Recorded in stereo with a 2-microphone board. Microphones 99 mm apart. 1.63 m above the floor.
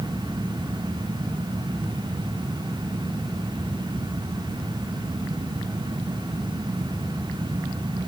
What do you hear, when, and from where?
Only background noise.